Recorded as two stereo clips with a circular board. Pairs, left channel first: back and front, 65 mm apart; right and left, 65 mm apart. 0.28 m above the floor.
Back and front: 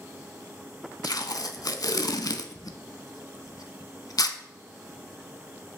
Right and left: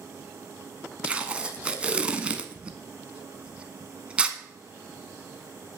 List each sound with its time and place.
1.0 s tape being pulled: 165° left, 0.6 m